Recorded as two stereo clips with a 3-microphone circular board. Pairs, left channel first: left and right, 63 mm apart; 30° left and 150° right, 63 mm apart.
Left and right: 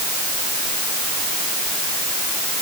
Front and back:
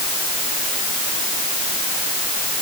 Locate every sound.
Only background noise.